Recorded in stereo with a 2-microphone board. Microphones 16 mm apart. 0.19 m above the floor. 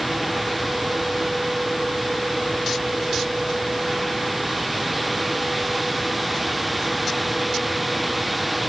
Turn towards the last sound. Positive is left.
No sound to turn to.